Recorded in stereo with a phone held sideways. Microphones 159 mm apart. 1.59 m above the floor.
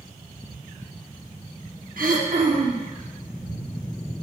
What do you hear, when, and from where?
2.0 s throat clearing: 70° right (ahead or behind), 0.9 m